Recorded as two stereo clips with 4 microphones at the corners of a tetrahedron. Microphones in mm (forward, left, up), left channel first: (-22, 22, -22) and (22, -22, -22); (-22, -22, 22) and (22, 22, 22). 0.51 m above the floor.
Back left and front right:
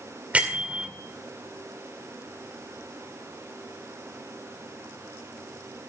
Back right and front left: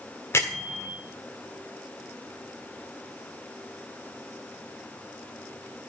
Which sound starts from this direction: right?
A bell, at 0.3 s.